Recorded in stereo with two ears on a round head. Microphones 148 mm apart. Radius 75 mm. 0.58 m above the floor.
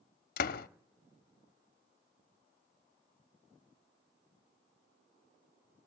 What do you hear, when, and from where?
0.4 s a door slam: 60° left (ahead or behind), 0.7 m